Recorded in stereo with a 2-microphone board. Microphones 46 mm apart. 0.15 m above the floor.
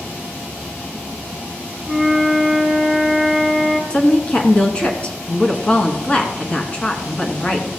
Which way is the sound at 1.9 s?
5° left (ahead or behind).